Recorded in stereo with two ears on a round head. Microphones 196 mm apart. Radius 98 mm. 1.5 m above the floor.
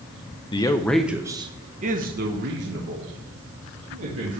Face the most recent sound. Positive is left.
turn(degrees=-70)  # may be behind; listen again after turning